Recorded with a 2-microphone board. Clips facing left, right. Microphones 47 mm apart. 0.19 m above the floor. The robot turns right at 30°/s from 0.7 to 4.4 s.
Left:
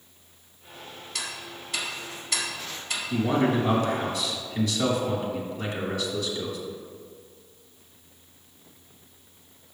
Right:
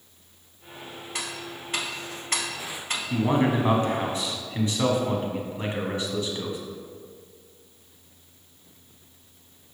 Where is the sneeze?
No sneeze in this recording.